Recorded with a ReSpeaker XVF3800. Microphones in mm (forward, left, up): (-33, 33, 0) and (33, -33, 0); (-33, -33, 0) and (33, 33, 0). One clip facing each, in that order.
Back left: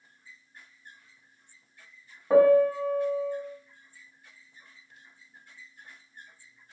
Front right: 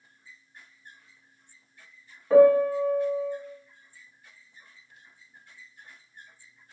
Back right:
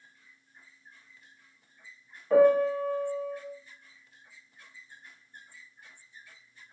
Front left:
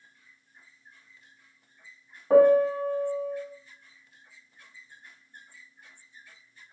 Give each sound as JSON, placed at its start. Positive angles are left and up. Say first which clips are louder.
{"t": 2.3, "sound": "a piano", "louder": "front right 2 dB, front left 3 dB", "azimuth_deg": 80, "distance_m": 0.9}